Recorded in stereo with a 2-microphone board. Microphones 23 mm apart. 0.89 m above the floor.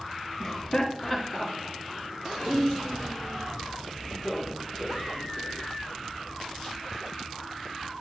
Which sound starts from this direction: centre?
Laughter, at 0.4 s.